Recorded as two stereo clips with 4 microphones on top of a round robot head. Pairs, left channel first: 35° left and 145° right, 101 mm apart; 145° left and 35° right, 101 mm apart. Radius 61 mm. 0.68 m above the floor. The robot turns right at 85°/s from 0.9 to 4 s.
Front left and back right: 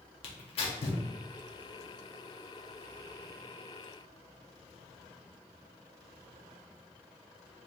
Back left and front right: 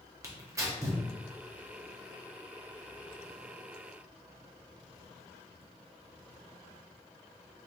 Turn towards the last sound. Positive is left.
turn(degrees=-70)